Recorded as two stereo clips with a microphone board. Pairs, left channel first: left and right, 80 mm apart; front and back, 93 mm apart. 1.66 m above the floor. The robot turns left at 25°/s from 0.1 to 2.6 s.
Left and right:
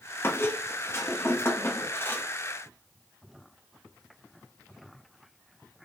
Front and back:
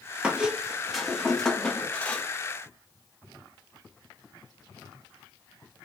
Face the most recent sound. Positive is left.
turn(degrees=50)